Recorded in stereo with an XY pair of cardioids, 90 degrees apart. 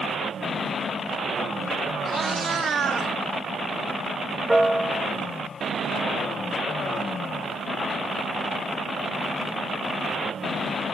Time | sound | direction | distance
2.0 | a cat meowing | 55° right | 1.6 m
4.5 | a piano | 10° right | 1.0 m